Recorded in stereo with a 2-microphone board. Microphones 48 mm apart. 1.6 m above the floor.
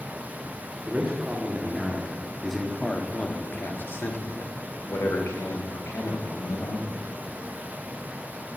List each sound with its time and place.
0.9 s a man speaking: 35° right (ahead or behind), 1.5 m; by 7.1 s 85° left, 2.5 m